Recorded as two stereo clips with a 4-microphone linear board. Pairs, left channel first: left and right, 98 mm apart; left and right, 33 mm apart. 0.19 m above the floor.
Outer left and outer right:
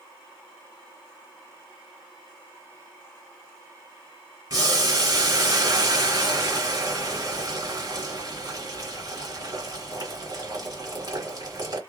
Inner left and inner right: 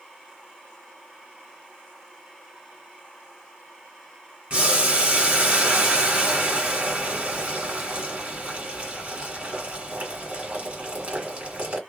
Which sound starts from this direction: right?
Boiling, at 4.5 s.